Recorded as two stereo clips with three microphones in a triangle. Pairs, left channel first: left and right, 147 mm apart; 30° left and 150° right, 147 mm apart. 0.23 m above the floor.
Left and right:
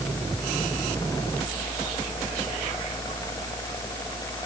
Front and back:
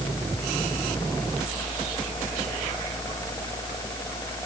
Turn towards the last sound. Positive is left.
No sound to turn to.